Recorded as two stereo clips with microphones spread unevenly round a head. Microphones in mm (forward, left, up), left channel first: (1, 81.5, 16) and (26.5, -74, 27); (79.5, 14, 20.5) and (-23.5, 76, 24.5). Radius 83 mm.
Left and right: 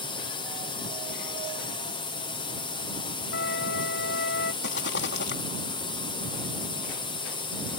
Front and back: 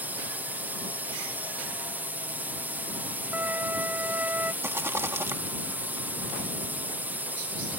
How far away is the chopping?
I don't hear chopping.